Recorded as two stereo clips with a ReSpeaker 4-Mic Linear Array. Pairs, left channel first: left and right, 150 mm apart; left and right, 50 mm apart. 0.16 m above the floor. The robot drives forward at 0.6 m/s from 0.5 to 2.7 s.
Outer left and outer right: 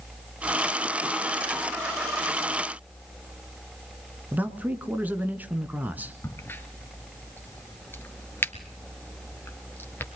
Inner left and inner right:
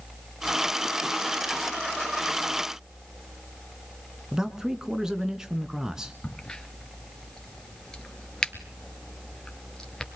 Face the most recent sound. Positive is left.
turn(degrees=15)  # may be behind; listen again after turning